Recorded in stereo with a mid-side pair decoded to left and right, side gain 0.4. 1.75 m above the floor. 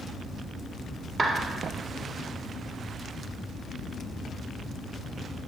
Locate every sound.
1.2 s a clap: 35° right, 1.9 m